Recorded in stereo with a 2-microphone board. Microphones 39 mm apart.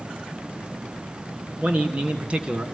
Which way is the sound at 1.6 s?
40° right (ahead or behind).